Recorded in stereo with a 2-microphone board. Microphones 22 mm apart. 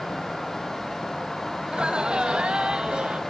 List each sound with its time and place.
1.6 s laughter: 40° right (ahead or behind), 1.3 m